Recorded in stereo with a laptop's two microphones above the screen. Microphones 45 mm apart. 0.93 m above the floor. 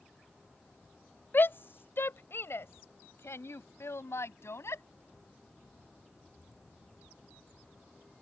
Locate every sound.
1.3 s a shout: 50° left (ahead or behind); by 4.8 s 80° left